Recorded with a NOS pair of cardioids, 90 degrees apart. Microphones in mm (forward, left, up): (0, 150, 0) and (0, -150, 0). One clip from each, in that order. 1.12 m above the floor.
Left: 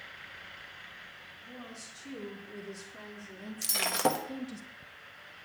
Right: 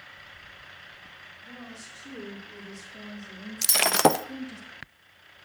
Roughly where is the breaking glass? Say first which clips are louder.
Right 8 dB; ahead right.